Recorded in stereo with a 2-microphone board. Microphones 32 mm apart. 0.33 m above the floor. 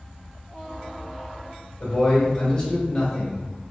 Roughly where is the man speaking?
Left.